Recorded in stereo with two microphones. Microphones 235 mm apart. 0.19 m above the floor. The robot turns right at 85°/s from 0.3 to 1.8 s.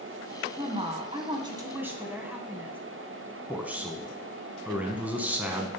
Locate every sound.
0.6 s a woman speaking: 20° right (ahead or behind), 1.4 m; by 2.8 s 10° right (ahead or behind), 1.4 m
3.5 s a man speaking: 5° right (ahead or behind), 1.3 m